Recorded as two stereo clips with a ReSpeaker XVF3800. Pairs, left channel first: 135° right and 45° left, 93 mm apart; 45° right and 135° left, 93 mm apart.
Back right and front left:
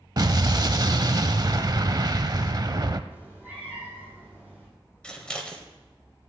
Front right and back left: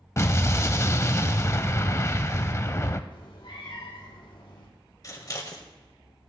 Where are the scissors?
60° right, 1.4 m.